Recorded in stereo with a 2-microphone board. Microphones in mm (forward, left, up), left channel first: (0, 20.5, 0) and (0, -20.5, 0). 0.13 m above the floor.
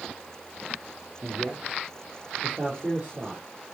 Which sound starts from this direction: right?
A man speaking, at 1.2 s.